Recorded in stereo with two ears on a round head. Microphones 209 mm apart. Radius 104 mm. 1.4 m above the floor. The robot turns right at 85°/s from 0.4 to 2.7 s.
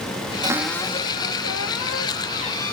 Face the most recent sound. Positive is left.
turn(degrees=175)